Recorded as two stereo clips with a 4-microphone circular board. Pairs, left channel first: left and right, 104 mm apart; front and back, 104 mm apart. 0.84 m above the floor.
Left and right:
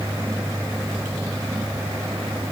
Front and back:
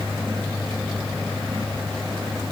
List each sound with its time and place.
Only background noise.